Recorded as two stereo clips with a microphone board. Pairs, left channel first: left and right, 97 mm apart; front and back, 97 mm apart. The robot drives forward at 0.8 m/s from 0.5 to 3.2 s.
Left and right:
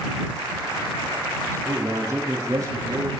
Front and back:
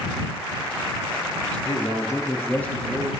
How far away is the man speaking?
About 1.8 m.